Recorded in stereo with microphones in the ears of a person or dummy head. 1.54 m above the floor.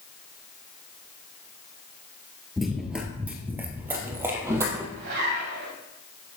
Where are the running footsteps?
Centre (ahead or behind), 1.6 m; by 4.9 s 15° right (ahead or behind), 2.5 m.